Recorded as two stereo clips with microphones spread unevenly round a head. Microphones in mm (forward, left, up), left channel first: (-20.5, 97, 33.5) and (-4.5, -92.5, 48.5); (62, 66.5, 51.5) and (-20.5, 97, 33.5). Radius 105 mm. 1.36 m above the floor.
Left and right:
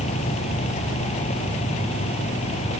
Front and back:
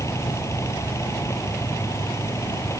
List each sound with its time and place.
0.0 s a fan: 35° left